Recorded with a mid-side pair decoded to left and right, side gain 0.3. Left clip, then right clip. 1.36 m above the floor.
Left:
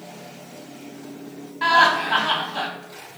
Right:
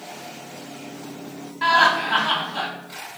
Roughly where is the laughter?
Ahead.